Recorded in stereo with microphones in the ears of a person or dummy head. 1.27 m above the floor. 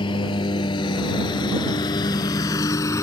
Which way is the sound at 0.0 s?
30° left (ahead or behind).